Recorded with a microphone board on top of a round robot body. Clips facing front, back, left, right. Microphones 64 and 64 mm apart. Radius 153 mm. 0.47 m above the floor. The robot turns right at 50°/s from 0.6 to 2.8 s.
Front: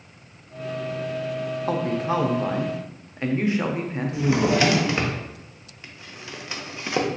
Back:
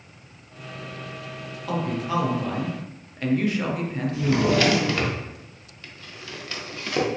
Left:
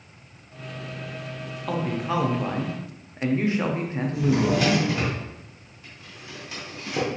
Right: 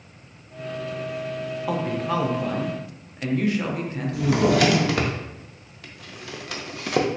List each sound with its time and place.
1.7 s a man speaking: 10° right, 0.8 m; by 4.6 s 45° left, 0.8 m
4.1 s a drawer: 70° right, 0.6 m